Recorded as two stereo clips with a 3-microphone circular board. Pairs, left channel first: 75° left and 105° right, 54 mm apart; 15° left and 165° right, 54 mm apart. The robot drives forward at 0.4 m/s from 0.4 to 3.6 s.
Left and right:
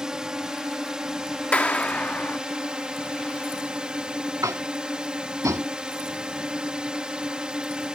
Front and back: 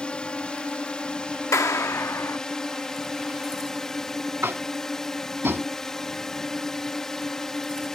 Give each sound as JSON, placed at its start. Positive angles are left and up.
{"t": 0.0, "sound": "a drone", "azimuth_deg": -35}
{"t": 1.5, "sound": "a clap", "azimuth_deg": 10}
{"t": 4.4, "sound": "tapping", "azimuth_deg": -115}